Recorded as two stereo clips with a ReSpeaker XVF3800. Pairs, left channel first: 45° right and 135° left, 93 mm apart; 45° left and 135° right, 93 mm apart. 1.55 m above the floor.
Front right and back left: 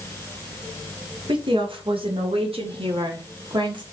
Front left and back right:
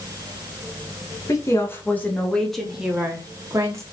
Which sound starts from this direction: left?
A woman speaking, at 1.3 s.